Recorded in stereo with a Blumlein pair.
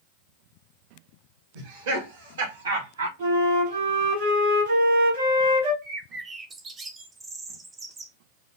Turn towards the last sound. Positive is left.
turn(degrees=-20)